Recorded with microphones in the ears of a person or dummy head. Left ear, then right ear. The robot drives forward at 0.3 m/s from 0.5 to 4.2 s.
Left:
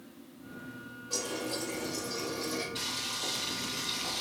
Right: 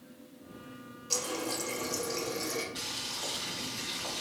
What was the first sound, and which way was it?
A running tap, 85° right.